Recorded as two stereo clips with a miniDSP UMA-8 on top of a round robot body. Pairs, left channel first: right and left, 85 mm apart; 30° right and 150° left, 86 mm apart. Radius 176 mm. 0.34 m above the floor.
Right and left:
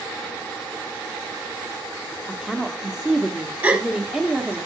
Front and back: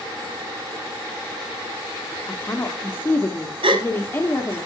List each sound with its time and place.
2.3 s a woman speaking: 10° left, 1.5 m
3.6 s a gasp: 165° left, 1.9 m